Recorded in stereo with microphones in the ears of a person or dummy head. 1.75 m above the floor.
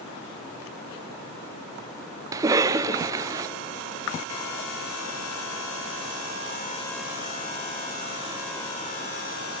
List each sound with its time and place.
2.3 s a cough: 20° right (ahead or behind), 0.9 m